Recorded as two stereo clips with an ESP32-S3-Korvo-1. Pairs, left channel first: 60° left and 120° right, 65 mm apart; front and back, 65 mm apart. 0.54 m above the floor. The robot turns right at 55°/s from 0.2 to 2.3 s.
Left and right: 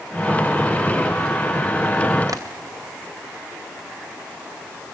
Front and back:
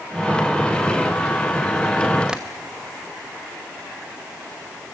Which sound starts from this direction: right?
Tapping, at 2.3 s.